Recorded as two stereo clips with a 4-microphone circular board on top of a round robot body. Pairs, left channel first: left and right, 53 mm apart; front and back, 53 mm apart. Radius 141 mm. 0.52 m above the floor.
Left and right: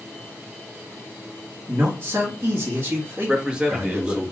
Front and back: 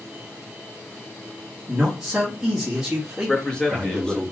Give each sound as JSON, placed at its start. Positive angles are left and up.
{"t": 1.7, "sound": "a man speaking", "azimuth_deg": -105, "distance_m": 1.3}
{"t": 3.3, "sound": "a man speaking", "azimuth_deg": -45, "distance_m": 1.1}